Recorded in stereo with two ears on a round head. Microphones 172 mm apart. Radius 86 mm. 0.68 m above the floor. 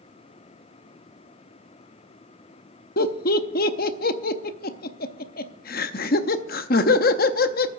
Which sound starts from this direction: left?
Laughter, at 3.0 s.